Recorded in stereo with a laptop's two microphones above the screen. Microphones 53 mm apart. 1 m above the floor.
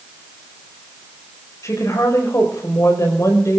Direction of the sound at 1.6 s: 75° left (ahead or behind).